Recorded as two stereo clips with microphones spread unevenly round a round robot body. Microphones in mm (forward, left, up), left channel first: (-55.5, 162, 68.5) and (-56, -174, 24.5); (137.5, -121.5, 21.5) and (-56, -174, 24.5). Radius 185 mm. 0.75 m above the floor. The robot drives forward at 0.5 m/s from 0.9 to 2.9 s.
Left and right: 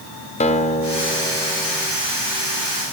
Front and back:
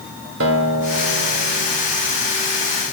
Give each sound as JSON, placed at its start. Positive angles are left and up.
{"t": 0.4, "sound": "a guitar", "azimuth_deg": 165, "distance_m": 2.0}